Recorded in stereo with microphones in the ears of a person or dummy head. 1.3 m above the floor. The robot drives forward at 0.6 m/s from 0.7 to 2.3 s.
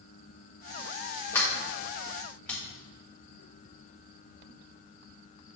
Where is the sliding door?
15° left (ahead or behind), 1.5 m; by 2.6 s 10° left (ahead or behind), 2 m.